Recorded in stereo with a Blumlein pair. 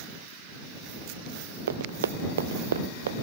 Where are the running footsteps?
65° right; by 3.2 s 60° right.